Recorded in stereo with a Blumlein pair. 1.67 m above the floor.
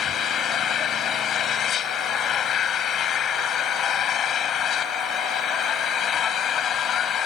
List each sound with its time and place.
0.0 s an engine running: 30° left